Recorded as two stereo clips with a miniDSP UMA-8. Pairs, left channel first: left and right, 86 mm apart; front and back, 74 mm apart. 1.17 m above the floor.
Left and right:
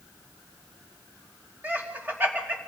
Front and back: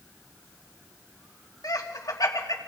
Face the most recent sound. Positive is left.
turn(degrees=-25)